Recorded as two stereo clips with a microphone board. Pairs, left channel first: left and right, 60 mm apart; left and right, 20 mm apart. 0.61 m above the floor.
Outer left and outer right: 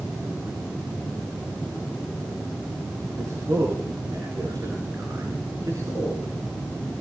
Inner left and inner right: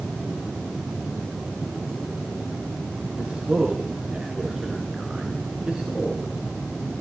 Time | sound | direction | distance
3.2 | a man speaking | 60° right (ahead or behind) | 8.5 m